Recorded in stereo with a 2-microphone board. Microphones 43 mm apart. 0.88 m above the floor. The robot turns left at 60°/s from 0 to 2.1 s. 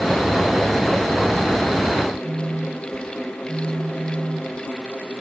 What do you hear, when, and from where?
2.2 s a phone buzzing: 75° right (ahead or behind), 0.9 m